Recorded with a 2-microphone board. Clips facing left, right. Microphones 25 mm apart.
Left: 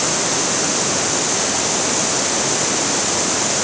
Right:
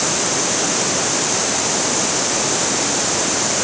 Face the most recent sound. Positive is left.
No sound to turn to.